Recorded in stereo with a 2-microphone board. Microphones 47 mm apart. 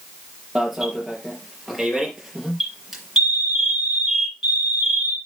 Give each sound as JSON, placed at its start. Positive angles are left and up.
{"t": 0.6, "sound": "an alarm", "side_deg": -5, "distance_m": 4.0}